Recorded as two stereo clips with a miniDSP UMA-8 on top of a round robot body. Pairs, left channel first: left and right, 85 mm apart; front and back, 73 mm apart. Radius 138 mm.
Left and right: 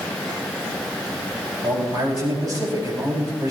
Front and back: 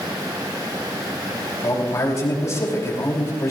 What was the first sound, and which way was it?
A man speaking, 45° right.